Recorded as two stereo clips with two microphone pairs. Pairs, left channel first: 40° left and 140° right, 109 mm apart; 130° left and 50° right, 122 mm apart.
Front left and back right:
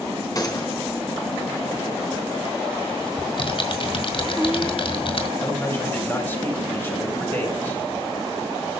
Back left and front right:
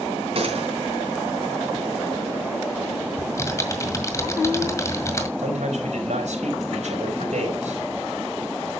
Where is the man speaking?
30° right, 5 m.